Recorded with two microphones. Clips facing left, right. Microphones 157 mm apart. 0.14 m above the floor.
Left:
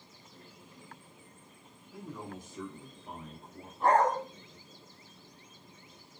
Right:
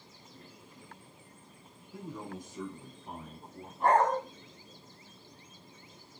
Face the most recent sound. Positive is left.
turn(degrees=-15)  # may be behind; listen again after turning